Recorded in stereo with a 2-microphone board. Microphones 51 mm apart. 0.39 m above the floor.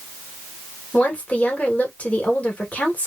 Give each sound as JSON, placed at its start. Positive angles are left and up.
{"t": 0.9, "sound": "a woman speaking", "side_deg": 25, "distance_m": 1.1}